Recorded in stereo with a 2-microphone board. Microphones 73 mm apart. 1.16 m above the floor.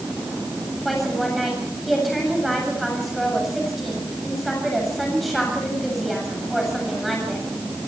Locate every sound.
0.8 s a woman speaking: centre (ahead or behind), 7.5 m